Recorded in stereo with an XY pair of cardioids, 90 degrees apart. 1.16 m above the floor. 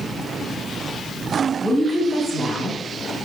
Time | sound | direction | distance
1.6 | a woman speaking | 5° right | 1.8 m